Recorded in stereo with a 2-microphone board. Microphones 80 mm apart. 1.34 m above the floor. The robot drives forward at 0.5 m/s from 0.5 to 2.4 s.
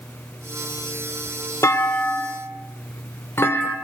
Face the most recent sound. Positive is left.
turn(degrees=30)  # may be behind; listen again after turning